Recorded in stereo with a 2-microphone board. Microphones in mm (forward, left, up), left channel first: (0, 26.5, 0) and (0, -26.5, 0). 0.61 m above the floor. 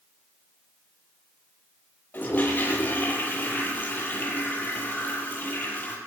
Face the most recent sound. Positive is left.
turn(degrees=35)  # may be behind; listen again after turning